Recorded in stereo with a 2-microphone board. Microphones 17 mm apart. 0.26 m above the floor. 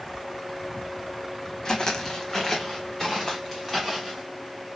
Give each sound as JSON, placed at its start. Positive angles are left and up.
{"t": 1.6, "sound": "footsteps", "side_deg": 45, "distance_m": 0.8}